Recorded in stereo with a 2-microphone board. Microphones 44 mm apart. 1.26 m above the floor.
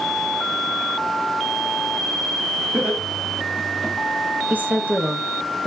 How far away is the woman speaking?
About 0.7 m.